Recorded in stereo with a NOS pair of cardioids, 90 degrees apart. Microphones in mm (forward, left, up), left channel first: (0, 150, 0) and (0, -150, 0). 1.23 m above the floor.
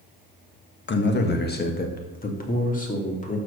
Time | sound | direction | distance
0.9 | a man speaking | 40° left | 1.5 m